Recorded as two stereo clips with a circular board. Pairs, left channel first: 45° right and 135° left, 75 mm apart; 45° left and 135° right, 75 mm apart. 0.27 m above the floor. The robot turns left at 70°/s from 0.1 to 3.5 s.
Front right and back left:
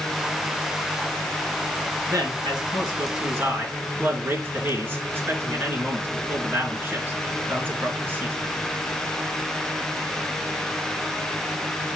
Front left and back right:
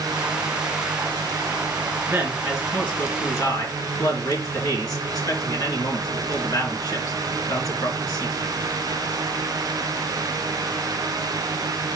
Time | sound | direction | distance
2.1 | a man speaking | 170° left | 3.5 m